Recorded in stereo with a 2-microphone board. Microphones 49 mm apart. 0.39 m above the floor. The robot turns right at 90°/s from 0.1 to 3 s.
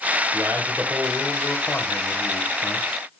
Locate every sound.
0.3 s a man speaking: 75° right, 2 m; by 3.0 s 165° left, 2 m